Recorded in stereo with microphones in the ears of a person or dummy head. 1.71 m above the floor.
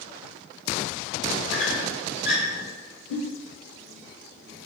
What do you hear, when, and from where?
1.5 s a squeak: 35° left (ahead or behind), 1.5 m
3.1 s a giggle: 60° left (ahead or behind), 1.3 m